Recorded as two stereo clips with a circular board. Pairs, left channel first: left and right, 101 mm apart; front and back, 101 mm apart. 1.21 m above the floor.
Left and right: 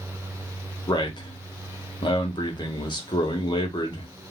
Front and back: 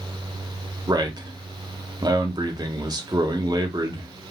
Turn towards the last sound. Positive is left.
turn(degrees=130)